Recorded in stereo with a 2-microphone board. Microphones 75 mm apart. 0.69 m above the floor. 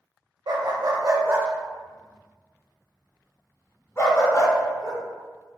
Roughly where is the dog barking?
Right.